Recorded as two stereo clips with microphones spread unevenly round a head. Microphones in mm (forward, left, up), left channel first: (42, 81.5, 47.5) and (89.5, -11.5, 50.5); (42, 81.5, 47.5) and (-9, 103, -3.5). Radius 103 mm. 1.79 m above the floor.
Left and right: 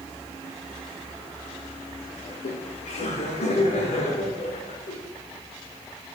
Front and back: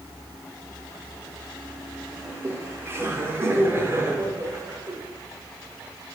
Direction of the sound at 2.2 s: 105° left.